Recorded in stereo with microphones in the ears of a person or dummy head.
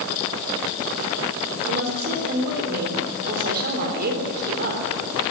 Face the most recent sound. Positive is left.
turn(degrees=-55)  # may be behind; listen again after turning